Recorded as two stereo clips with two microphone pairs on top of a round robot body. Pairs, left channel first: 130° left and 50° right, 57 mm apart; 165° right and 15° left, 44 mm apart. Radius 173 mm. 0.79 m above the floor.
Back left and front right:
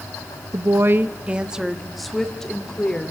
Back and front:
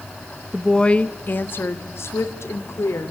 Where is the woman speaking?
80° right, 1.0 m; by 3.1 s 160° right, 2.5 m.